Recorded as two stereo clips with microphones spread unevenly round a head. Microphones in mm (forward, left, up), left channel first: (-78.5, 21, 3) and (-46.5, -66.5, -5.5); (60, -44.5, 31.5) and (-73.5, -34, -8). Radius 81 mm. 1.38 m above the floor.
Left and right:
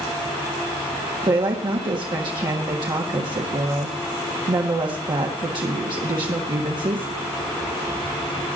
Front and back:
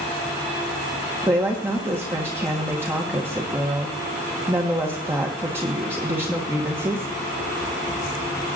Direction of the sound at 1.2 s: 110° right.